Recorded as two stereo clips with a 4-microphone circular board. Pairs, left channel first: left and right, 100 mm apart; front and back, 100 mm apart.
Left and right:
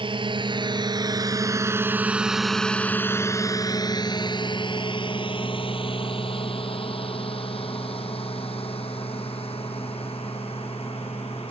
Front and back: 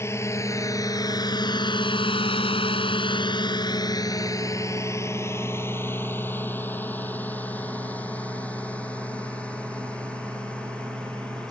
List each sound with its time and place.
0.0 s a drone: 65° right; by 11.5 s 80° left